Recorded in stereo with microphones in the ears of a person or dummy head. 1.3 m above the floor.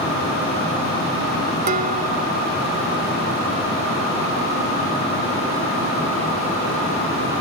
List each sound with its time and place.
1.7 s dishes clattering: 50° right (ahead or behind)